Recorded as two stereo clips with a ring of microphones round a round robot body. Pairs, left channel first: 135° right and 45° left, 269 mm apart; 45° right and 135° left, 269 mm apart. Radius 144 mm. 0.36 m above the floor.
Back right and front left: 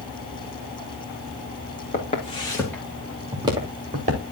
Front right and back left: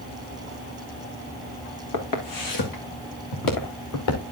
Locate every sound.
1.9 s footsteps: 70° right, 3 m; by 4.2 s 15° right, 3.5 m